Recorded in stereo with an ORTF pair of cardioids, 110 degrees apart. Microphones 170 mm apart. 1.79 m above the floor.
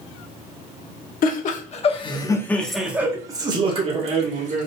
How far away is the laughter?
About 1.0 m.